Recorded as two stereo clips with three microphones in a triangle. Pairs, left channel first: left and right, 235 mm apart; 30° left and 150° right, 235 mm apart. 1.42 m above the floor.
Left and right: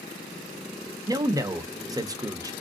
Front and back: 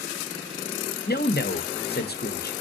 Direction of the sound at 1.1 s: 15° right.